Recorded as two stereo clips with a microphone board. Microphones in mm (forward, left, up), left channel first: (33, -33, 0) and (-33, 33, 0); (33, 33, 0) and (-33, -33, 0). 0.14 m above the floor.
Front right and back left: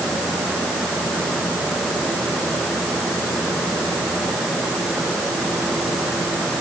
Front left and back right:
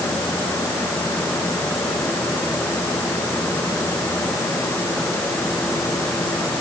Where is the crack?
No crack in this recording.